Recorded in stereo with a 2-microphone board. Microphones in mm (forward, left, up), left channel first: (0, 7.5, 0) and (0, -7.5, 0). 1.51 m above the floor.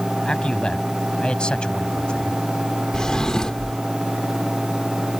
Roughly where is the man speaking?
Left.